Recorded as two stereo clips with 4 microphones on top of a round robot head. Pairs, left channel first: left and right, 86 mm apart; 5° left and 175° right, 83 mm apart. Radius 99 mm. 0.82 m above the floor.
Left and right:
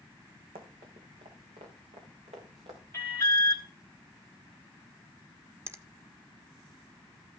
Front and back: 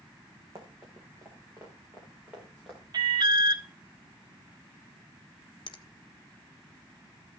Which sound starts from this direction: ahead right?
A finger snap, at 5.7 s.